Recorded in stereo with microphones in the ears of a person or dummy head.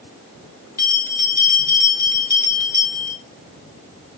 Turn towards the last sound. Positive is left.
turn(degrees=20)  # may be behind; listen again after turning